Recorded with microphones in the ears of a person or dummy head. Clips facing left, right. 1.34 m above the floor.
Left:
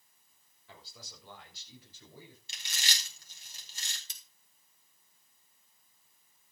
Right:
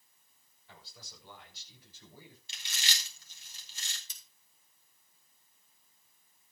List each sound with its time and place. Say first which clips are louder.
0.7 s a man speaking: left 3 dB; 70° left (ahead or behind), 6.5 m; by 2.4 s 75° left (ahead or behind), 9 m
2.5 s chewing: even; 45° left (ahead or behind), 4.5 m
4.1 s scissors: left 1 dB; 55° left (ahead or behind), 3.5 m